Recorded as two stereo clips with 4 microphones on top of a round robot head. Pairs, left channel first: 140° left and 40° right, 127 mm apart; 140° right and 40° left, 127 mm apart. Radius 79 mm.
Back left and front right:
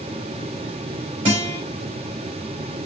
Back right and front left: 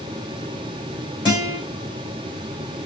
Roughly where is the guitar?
Right.